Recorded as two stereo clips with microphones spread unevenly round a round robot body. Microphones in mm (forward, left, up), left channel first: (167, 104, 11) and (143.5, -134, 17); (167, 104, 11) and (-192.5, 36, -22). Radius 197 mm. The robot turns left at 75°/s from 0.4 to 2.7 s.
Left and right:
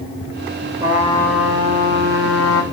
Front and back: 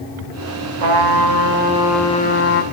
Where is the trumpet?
170° right, 3.5 m; by 2.6 s 50° left, 3.5 m.